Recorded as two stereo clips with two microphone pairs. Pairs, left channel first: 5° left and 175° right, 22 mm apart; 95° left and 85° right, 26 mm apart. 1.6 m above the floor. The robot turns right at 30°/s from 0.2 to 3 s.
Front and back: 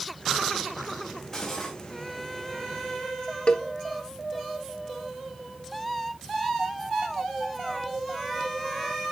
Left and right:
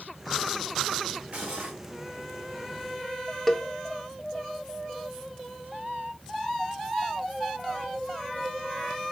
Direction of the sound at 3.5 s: 15° left.